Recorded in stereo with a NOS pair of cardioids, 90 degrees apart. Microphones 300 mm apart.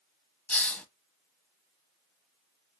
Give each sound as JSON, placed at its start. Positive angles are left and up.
{"t": 0.5, "sound": "a hiss", "azimuth_deg": 5, "distance_m": 0.9}